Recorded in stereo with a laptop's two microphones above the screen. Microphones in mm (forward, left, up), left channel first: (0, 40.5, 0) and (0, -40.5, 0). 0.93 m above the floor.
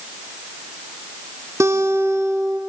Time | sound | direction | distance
1.6 | a guitar | 40° right (ahead or behind) | 0.8 m